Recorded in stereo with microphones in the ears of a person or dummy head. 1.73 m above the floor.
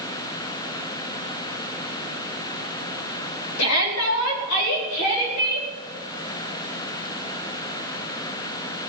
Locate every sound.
3.6 s a shout: 85° left, 4 m; by 5.7 s 75° left (ahead or behind), 5 m